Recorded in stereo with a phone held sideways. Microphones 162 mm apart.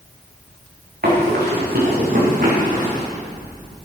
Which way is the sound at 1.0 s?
70° right (ahead or behind).